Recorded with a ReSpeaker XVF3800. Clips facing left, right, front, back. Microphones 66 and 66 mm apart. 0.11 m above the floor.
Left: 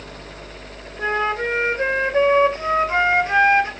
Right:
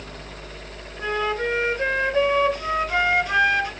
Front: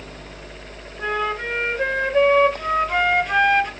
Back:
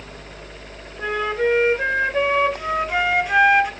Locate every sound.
1.0 s a flute: 105° left, 0.5 m